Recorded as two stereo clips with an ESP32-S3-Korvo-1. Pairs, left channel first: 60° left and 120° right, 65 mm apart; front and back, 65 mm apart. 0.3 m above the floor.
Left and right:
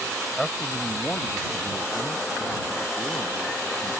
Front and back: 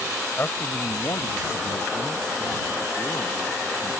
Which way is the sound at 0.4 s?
25° right.